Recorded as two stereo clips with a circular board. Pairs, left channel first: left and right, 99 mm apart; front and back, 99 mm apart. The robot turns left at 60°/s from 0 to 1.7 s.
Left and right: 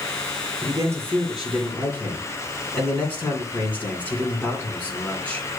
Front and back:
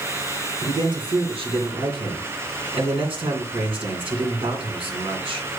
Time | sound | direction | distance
0.6 | a man speaking | 130° right | 2.5 m